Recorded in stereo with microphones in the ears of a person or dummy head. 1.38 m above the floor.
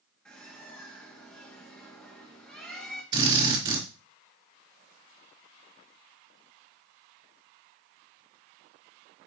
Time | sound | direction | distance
0.2 | a bird | 5° left (ahead or behind) | 1.6 m
3.1 | a drill | 20° right (ahead or behind) | 3.5 m